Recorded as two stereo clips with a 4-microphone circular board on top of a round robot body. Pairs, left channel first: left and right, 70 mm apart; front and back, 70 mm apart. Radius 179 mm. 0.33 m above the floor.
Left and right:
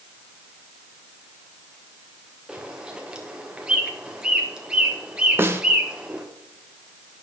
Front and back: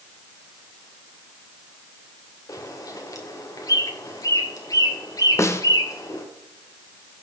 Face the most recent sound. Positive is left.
turn(degrees=-40)